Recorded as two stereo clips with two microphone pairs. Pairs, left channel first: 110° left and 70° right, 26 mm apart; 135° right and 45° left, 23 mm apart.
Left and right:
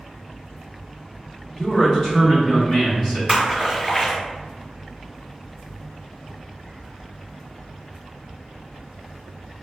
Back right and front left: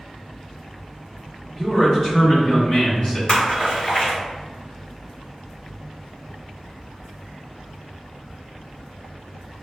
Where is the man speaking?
175° left, 0.9 m; by 3.2 s 140° right, 1.7 m.